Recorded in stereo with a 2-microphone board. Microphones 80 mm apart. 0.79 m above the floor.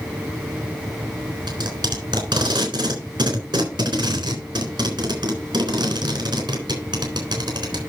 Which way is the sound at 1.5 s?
60° right (ahead or behind).